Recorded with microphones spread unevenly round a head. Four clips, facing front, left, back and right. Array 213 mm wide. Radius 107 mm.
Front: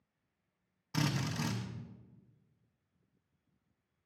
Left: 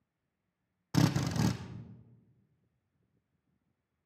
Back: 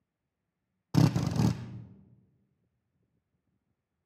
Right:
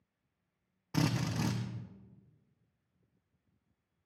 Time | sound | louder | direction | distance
0.9 | a drill | left 3 dB, back 8 dB | 165° left | 0.5 m